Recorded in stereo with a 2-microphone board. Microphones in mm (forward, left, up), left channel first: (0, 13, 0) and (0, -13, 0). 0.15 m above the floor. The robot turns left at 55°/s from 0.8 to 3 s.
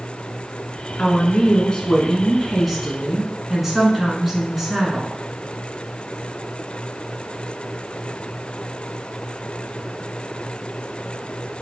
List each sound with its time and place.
1.0 s a woman speaking: 90° left, 2 m; by 5.2 s 20° right, 2 m